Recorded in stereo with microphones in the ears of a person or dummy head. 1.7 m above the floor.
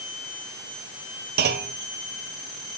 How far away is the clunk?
About 1.4 m.